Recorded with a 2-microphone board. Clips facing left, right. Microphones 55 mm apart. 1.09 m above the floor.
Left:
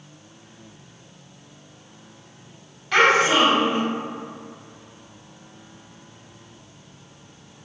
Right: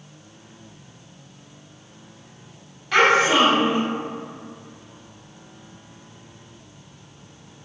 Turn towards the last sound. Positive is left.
turn(degrees=0)  # may be behind; listen again after turning